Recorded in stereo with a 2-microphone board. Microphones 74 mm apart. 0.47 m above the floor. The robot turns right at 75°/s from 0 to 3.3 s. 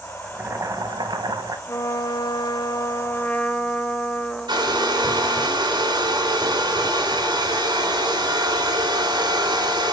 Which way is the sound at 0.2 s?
160° right.